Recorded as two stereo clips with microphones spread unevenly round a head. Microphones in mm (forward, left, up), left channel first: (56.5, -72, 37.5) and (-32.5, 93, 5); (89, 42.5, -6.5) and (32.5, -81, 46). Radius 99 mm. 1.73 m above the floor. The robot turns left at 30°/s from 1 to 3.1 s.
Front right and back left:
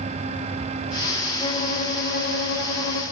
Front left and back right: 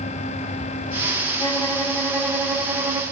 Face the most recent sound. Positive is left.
turn(degrees=-60)